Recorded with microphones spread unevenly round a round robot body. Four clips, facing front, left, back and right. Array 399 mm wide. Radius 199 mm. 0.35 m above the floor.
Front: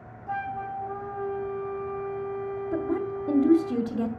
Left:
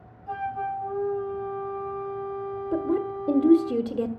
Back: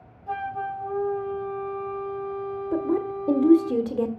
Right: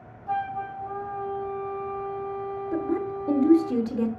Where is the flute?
Straight behind, 4 m.